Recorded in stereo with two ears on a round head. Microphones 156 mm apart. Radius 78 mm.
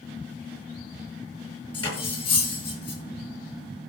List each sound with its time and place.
1.7 s cutlery clinking: 30° left (ahead or behind), 9.5 m